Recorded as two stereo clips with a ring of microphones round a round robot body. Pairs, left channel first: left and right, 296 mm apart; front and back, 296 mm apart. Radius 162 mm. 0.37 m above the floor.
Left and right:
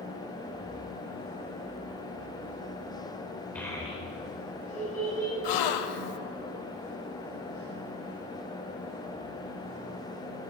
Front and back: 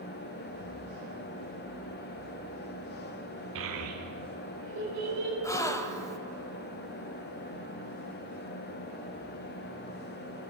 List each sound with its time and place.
3.5 s a child speaking: 175° left, 0.7 m; by 5.3 s 155° left, 2 m
5.4 s a gasp: 80° left, 0.6 m